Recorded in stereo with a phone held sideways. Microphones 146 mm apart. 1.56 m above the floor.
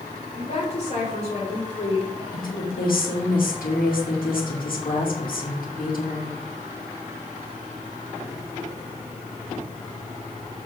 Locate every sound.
0.3 s a woman speaking: 50° left (ahead or behind), 4.5 m
2.3 s a woman speaking: 80° left, 2.5 m